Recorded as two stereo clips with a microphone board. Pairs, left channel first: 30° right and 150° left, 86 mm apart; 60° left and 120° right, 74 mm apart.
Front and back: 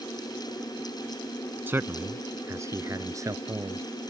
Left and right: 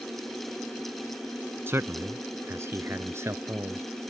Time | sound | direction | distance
1.7 | a man speaking | 160° right | ?